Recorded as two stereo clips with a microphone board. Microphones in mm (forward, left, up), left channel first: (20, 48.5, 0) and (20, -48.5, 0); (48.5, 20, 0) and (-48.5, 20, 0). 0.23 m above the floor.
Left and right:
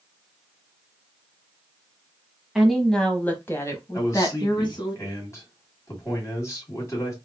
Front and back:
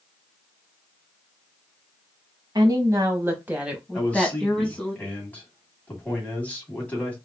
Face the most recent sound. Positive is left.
turn(degrees=60)